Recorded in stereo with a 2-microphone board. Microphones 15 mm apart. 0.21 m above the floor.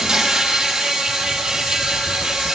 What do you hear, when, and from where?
0.0 s an insect: 70° right (ahead or behind), 5 m